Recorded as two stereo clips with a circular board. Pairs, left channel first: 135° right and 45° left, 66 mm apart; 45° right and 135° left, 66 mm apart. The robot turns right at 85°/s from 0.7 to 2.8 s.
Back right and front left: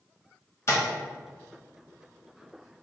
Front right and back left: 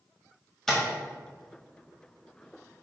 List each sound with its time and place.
0.7 s tapping: 125° right, 1.1 m; by 0.8 s 115° right, 1.1 m